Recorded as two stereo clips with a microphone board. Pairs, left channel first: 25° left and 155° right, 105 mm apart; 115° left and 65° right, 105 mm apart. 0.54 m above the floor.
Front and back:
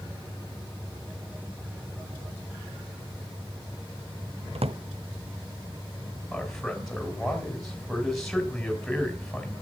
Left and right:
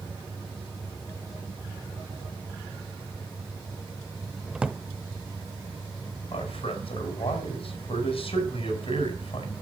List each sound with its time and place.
4.5 s a drawer: 150° right, 0.7 m
6.3 s a man speaking: 110° left, 4.5 m